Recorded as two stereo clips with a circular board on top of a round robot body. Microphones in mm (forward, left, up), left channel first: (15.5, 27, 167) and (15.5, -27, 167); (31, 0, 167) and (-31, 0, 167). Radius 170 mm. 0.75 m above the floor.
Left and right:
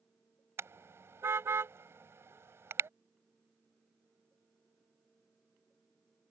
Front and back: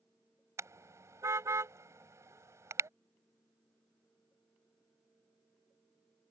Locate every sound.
0.6 s a car horn: 135° right